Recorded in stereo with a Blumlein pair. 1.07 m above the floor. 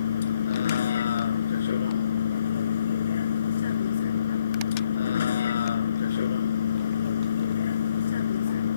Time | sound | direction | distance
0.0 | a vehicle | 65° left | ?